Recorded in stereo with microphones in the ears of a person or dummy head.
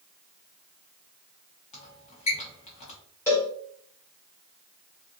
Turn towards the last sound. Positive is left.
turn(degrees=10)  # may be behind; listen again after turning